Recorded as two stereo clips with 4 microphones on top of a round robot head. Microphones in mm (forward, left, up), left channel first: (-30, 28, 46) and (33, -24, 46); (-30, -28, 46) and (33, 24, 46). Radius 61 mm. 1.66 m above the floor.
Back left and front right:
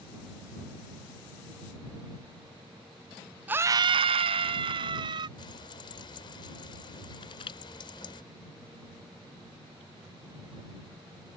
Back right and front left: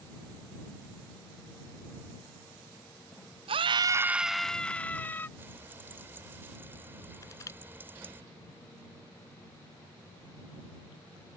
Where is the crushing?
165° left.